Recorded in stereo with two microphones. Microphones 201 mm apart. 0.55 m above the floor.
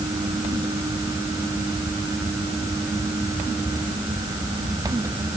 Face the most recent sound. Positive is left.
No sound to turn to.